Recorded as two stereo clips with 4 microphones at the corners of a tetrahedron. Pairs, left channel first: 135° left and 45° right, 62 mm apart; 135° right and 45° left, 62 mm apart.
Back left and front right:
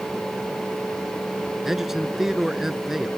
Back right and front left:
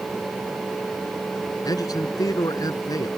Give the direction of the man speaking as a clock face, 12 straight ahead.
4 o'clock.